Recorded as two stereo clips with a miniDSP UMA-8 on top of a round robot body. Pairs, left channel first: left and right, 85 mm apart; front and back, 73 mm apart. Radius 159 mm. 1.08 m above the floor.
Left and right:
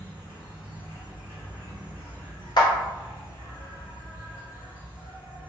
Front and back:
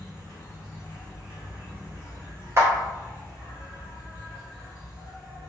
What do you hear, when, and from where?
0.0 s an insect: 70° left, 1.6 m
2.6 s a clap: 125° left, 0.5 m